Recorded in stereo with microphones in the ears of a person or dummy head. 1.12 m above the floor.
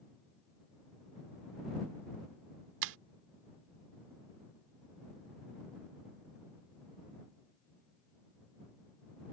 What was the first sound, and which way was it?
Breaking glass, 70° right (ahead or behind).